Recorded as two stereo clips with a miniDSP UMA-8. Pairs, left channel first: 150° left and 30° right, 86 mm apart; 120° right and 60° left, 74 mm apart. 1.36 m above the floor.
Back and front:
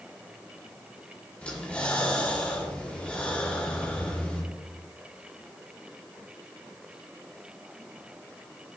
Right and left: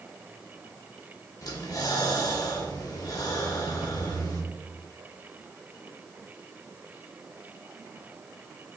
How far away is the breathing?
About 1.3 m.